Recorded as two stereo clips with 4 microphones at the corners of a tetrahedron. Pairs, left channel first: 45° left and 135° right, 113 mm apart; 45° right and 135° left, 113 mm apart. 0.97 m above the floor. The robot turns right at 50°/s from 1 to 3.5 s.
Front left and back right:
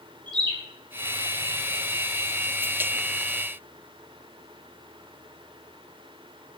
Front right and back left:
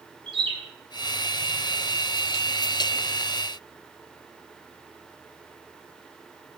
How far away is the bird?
About 5.5 m.